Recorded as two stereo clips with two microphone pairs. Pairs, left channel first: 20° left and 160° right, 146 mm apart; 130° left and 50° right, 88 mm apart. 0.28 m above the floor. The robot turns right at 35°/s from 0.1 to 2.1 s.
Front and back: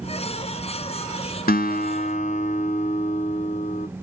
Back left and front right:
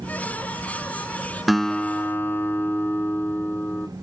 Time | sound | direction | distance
1.5 | a guitar | 40° left | 0.5 m